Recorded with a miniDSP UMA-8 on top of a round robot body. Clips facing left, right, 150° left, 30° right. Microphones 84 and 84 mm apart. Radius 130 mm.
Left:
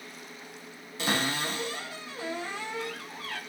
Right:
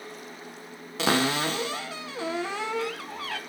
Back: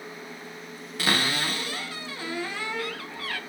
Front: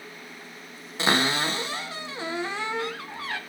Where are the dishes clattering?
I don't hear dishes clattering.